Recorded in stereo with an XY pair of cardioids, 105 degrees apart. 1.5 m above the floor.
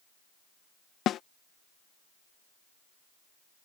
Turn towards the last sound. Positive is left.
turn(degrees=65)